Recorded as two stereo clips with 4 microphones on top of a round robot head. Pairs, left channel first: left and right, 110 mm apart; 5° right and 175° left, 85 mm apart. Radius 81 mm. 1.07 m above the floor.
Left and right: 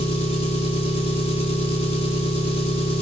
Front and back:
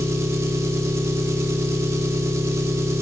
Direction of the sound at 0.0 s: 120° left.